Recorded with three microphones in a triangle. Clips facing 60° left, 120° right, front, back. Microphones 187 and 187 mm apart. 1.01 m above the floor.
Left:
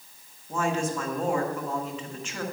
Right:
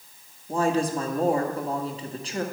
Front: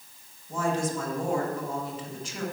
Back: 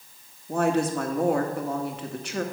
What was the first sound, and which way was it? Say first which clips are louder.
A woman speaking: right 4 dB, back 5 dB; 170° right.